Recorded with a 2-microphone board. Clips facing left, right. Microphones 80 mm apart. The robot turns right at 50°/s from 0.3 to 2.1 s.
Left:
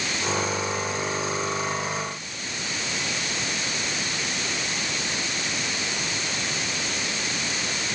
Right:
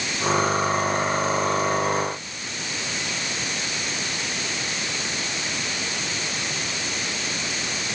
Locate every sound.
Only background noise.